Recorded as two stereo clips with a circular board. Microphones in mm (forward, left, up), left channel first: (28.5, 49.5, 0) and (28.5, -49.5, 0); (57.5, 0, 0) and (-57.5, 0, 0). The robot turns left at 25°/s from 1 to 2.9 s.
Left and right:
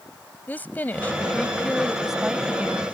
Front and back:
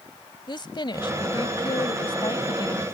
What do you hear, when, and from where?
0.5 s a woman speaking: 25° left; by 2.9 s 25° right